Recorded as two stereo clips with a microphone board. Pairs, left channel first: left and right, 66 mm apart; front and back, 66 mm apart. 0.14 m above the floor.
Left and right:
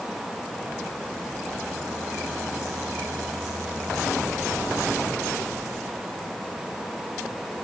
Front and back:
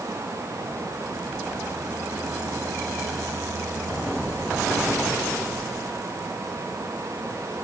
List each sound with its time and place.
Only background noise.